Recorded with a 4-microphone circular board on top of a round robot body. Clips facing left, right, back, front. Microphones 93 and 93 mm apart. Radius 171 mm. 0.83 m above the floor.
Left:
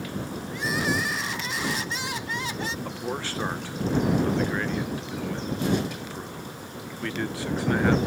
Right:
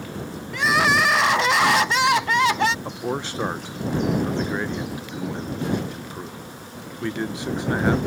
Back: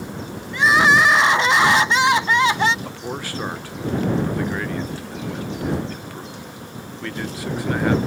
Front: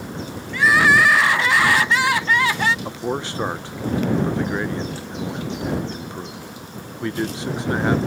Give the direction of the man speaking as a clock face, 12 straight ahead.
1 o'clock.